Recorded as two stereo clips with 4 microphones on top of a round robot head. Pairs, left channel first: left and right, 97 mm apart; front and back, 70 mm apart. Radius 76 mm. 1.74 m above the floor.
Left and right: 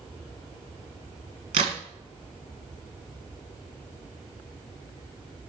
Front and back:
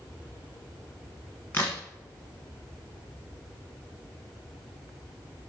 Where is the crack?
80° right, 1.1 m.